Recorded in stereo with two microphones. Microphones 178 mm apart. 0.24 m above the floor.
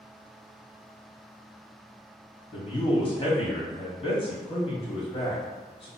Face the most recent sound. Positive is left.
turn(degrees=35)  # may be behind; listen again after turning